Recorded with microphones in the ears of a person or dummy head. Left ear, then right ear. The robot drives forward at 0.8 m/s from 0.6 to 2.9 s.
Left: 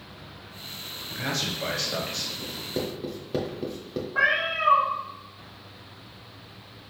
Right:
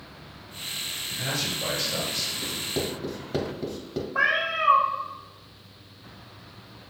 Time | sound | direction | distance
1.1 | a man speaking | 55° left (ahead or behind) | 1.3 m
2.4 | writing | centre (ahead or behind) | 0.9 m
4.2 | a cat meowing | centre (ahead or behind) | 0.8 m